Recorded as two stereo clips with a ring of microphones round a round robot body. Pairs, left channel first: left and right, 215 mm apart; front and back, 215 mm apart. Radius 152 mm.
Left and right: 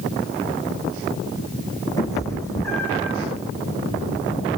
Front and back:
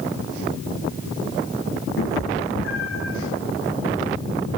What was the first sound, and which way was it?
A cat meowing, 15° left.